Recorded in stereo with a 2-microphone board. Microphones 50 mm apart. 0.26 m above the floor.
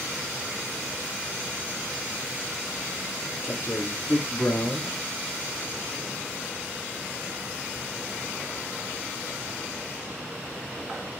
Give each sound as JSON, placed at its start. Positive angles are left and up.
{"t": 3.4, "sound": "a man speaking", "side_deg": 65, "distance_m": 3.0}